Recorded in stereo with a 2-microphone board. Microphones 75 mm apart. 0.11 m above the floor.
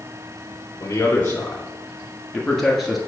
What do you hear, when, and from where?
0.8 s a man speaking: 30° left (ahead or behind), 1.5 m; by 3.0 s centre (ahead or behind), 1.8 m